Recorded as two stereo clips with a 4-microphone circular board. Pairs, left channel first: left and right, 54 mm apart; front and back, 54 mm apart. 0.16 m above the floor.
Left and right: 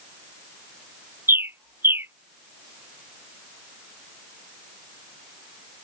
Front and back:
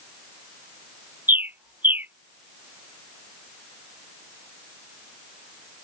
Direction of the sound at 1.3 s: 130° right.